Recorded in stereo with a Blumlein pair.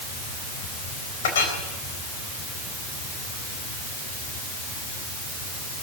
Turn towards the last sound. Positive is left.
turn(degrees=55)